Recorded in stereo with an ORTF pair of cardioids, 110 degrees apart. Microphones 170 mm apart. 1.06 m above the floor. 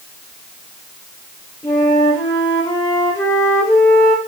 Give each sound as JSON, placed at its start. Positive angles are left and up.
{"t": 1.6, "sound": "a flute", "azimuth_deg": 20, "distance_m": 3.5}